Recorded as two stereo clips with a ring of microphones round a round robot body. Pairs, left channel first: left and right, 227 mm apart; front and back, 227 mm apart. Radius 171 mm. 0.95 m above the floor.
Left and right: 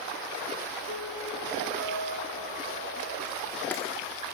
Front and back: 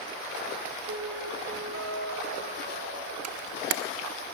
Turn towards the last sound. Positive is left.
turn(degrees=175)